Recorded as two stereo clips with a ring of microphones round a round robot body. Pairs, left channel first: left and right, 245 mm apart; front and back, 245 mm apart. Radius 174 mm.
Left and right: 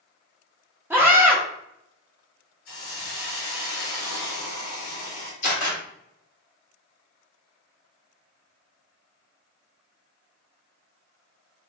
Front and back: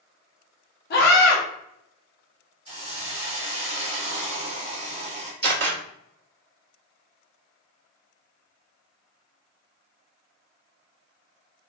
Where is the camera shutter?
150° left, 1.5 m.